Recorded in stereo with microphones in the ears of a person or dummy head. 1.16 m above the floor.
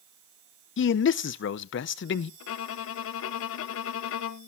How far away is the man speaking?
About 0.6 m.